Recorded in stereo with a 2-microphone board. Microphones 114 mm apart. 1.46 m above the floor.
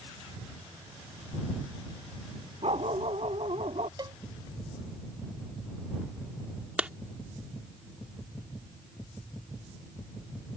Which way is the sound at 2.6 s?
65° right (ahead or behind).